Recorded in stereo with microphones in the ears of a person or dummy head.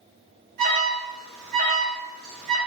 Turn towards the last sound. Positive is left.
turn(degrees=-45)  # may be behind; listen again after turning